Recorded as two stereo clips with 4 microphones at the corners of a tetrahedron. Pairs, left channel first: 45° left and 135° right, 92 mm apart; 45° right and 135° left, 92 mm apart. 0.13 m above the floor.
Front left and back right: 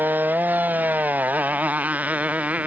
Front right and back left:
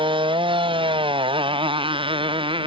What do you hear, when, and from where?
0.0 s a motorcycle: 155° left; by 2.7 s 150° left